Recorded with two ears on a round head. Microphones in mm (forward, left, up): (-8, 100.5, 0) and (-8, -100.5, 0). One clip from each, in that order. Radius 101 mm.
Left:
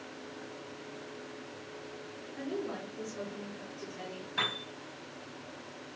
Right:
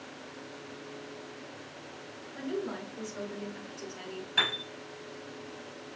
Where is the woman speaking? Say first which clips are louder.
Right 2 dB; 65° right (ahead or behind), 5 m.